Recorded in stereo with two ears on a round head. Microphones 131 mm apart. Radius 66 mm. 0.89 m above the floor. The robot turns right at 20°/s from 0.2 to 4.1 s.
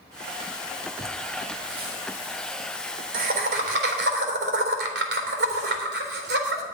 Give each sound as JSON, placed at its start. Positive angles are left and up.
{"t": 1.0, "sound": "laughter", "side_deg": -25, "distance_m": 3.5}